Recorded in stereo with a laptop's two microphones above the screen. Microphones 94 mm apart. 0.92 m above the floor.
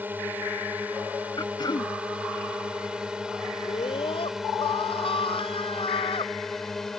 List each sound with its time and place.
0.0 s a drone: 20° right (ahead or behind); by 7.0 s 5° left (ahead or behind)
1.4 s throat clearing: 45° left (ahead or behind)
3.6 s a scream: 75° left (ahead or behind)